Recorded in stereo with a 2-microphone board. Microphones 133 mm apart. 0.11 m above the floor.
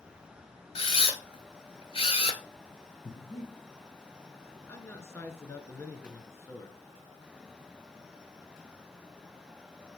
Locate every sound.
0.8 s a camera shutter: 50° left (ahead or behind), 1.0 m
3.0 s breathing: 25° left (ahead or behind), 2.5 m
4.7 s a man speaking: 20° left (ahead or behind), 1.3 m